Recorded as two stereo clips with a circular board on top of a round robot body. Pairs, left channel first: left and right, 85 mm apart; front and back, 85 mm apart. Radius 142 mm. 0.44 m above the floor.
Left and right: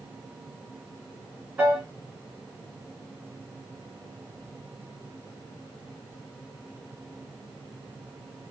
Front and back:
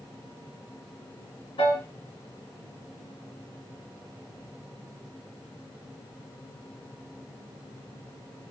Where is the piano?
20° right, 2.5 m.